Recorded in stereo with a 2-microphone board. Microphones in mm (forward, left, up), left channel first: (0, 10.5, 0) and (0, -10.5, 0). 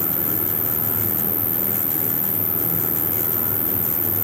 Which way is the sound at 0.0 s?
10° right (ahead or behind).